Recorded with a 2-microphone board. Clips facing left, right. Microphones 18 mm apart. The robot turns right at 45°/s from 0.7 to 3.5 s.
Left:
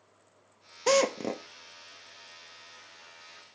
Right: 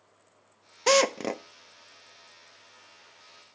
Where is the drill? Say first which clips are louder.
Right 2 dB; 25° right (ahead or behind), 1.0 m; by 1.4 s 40° right (ahead or behind), 1.0 m.